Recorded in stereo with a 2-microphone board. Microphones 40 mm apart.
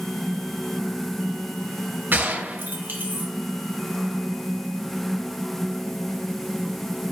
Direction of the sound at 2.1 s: 55° right (ahead or behind).